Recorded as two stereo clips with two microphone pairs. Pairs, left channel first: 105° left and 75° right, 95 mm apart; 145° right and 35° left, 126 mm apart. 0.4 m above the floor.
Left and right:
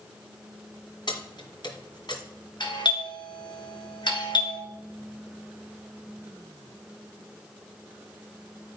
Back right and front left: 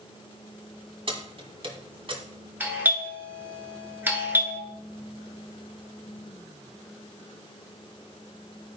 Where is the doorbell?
105° left, 3 m.